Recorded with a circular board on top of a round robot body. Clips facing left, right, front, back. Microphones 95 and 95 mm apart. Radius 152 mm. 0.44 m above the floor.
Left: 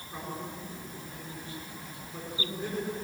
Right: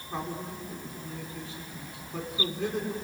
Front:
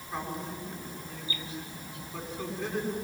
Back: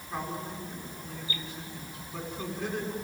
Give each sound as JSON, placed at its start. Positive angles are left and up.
{"t": 0.1, "sound": "a man speaking", "azimuth_deg": -95, "distance_m": 6.0}